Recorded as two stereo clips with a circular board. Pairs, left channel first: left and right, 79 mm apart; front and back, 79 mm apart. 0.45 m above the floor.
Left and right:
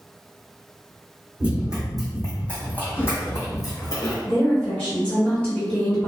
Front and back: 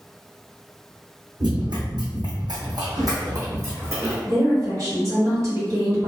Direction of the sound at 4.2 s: 160° left.